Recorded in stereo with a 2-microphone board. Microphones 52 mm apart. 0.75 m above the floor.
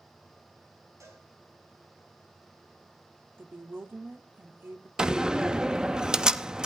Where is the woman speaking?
40° right (ahead or behind), 1.3 m.